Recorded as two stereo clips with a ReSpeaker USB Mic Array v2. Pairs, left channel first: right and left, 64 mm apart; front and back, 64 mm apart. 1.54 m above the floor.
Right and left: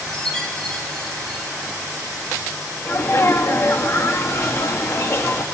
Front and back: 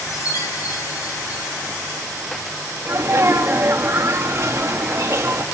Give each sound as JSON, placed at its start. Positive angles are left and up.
{"t": 0.1, "sound": "a chime", "azimuth_deg": -10, "distance_m": 3.0}
{"t": 2.9, "sound": "a sneeze", "azimuth_deg": -135, "distance_m": 2.0}